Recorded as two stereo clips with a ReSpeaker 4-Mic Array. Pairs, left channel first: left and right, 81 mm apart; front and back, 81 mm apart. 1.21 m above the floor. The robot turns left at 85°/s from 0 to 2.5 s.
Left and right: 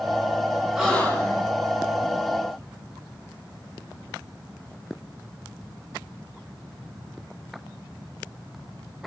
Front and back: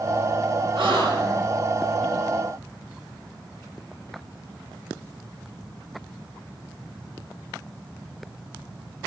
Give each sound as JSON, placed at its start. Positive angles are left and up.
{"t": 0.8, "sound": "a gasp", "azimuth_deg": -170, "distance_m": 7.0}